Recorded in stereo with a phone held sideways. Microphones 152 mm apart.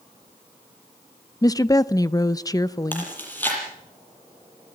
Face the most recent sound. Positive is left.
turn(degrees=15)  # may be behind; listen again after turning